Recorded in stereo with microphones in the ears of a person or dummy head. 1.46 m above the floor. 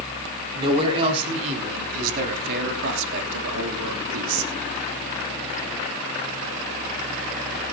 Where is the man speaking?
20° right (ahead or behind), 5 m; by 4.5 s 85° right, 4.5 m.